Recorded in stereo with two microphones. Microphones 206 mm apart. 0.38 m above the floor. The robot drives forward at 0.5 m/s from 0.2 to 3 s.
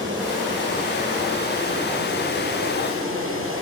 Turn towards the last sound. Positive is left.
turn(degrees=-85)